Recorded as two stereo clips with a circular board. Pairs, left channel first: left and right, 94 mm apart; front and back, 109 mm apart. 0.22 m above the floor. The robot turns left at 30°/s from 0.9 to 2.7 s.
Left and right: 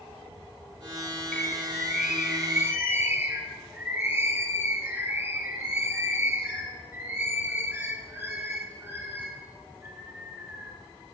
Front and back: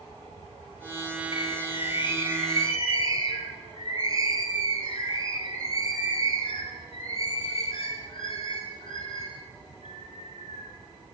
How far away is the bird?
About 1.4 m.